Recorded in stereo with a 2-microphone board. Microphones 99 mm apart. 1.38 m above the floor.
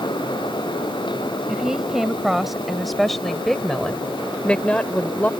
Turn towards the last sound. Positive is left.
turn(degrees=15)  # may be behind; listen again after turning